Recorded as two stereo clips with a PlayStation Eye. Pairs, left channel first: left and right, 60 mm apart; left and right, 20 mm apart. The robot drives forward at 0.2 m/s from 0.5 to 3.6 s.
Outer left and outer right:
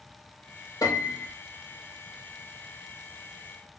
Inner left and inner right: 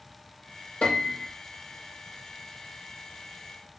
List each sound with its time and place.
0.8 s a piano: 80° left, 1.5 m